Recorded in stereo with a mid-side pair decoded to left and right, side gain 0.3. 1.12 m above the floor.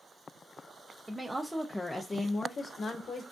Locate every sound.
1.1 s a woman speaking: 25° right, 0.8 m; by 3.2 s 80° left, 1.1 m